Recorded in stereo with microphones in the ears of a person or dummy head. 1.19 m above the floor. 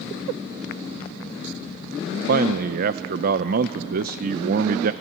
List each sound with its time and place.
2.3 s a man speaking: 55° right (ahead or behind), 0.5 m